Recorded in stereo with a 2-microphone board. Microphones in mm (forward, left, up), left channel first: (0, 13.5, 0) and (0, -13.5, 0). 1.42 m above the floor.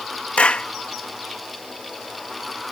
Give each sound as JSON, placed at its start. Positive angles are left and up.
{"t": 0.4, "sound": "a clap", "side_deg": 40}